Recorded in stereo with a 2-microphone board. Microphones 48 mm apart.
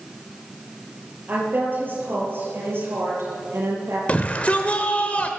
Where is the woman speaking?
40° right (ahead or behind), 7 m; by 4.0 s 65° right (ahead or behind), 7.5 m.